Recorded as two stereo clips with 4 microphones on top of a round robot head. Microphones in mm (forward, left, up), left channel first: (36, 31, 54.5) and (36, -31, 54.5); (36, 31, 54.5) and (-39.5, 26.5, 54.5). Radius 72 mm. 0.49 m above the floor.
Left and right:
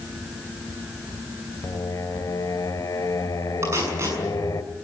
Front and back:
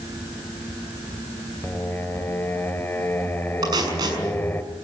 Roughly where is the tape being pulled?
Behind right.